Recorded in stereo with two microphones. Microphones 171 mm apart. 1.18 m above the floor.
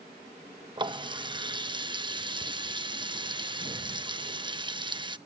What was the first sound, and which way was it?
A running tap, 25° right (ahead or behind).